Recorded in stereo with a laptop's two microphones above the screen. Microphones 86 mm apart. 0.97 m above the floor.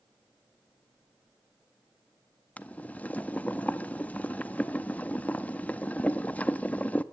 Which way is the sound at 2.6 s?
15° left (ahead or behind).